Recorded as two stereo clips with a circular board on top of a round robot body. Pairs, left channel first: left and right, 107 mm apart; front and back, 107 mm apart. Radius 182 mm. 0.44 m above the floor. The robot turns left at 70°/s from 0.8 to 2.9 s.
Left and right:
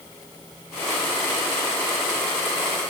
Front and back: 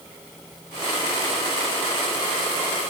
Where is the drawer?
No drawer in this recording.